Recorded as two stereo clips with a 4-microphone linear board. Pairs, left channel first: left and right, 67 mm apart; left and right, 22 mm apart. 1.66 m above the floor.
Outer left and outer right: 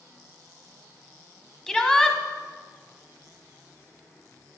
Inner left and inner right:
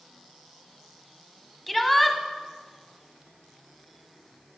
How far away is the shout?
About 0.9 m.